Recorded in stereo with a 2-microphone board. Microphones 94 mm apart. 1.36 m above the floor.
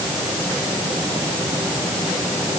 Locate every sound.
Only background noise.